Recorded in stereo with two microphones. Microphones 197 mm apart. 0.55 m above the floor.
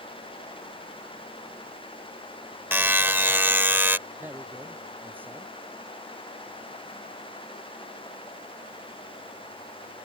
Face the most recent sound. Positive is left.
turn(degrees=-10)  # may be behind; listen again after turning